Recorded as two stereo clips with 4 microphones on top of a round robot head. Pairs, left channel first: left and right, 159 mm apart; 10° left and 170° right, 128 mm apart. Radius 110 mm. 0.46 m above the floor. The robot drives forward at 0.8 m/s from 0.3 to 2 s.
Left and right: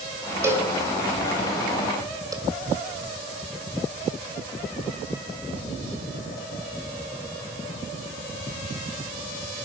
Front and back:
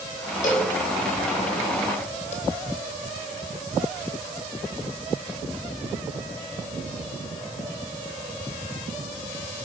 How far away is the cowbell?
About 4 m.